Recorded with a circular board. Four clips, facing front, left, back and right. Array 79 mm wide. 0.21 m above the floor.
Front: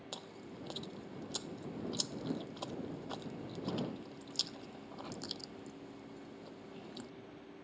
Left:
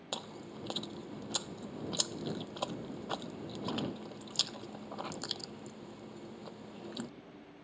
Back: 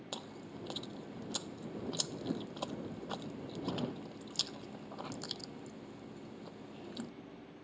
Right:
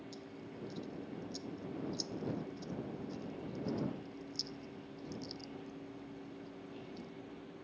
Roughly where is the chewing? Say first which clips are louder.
Left 4 dB, back 3 dB; left.